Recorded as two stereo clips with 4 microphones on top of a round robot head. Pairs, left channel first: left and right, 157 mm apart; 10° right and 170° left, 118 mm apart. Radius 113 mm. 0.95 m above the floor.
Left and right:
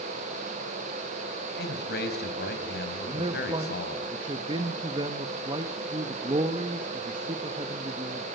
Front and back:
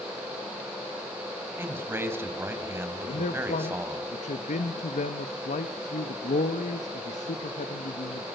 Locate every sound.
1.6 s a man speaking: 100° left, 5 m
3.1 s a man speaking: 30° right, 1.1 m